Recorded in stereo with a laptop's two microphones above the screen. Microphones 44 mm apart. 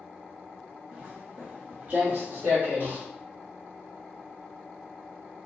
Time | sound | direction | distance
0.9 | footsteps | 20° right (ahead or behind) | 1.1 m